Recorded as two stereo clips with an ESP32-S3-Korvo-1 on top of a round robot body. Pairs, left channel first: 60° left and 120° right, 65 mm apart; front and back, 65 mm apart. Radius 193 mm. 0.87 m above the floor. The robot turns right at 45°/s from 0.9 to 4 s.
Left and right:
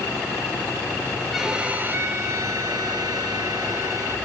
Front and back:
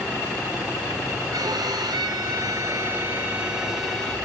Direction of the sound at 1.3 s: 155° left.